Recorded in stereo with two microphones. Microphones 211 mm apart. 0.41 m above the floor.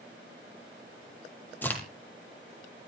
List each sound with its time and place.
1.6 s a crack: 10° left (ahead or behind), 3 m